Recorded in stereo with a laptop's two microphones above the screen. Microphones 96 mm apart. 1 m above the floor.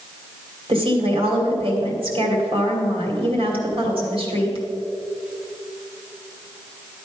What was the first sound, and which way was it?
A woman speaking, 60° right (ahead or behind).